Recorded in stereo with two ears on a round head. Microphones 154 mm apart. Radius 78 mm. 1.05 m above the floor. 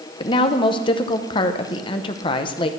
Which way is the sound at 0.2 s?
30° left (ahead or behind).